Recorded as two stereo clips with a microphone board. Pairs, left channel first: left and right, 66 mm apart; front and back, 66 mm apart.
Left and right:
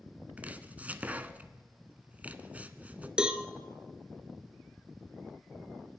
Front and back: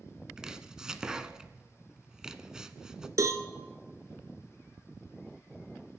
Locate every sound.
0.4 s chopping: 115° right, 0.7 m
3.2 s a cowbell: 165° right, 1.0 m